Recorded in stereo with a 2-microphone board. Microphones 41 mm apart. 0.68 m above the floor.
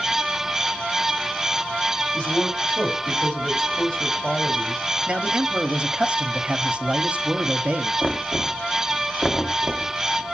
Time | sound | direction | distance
2.1 | a man speaking | 25° left (ahead or behind) | 4.5 m
5.1 | a man speaking | 25° right (ahead or behind) | 1.1 m
8.0 | knocking | 5° left (ahead or behind) | 0.9 m